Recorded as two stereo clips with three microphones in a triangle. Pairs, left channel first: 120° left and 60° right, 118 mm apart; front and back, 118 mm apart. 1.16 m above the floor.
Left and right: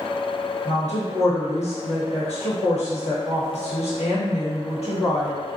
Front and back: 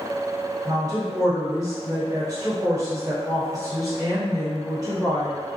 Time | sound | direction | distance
0.7 | a woman speaking | 125° left | 1.2 m